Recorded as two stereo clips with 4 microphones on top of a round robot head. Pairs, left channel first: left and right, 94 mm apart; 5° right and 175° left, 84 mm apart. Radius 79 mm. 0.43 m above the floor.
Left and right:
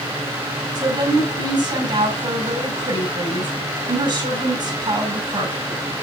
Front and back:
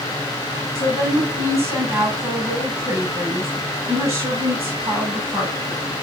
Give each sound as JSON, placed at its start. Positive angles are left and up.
{"t": 0.8, "sound": "a woman speaking", "azimuth_deg": -125, "distance_m": 7.5}